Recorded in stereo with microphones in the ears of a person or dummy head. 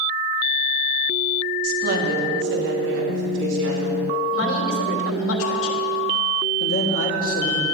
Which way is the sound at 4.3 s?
80° left.